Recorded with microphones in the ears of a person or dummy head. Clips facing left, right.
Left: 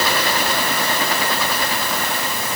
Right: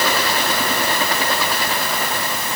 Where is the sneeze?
I don't hear a sneeze.